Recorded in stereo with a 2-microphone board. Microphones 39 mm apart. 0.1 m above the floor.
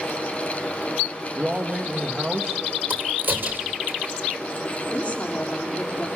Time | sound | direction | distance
1.4 | a man speaking | 35° right (ahead or behind) | 3.5 m
2.9 | a crack | 60° right (ahead or behind) | 2.5 m
4.9 | a woman speaking | 35° left (ahead or behind) | 6 m